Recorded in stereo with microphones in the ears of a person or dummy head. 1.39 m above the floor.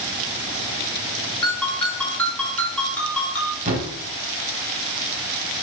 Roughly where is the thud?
Right.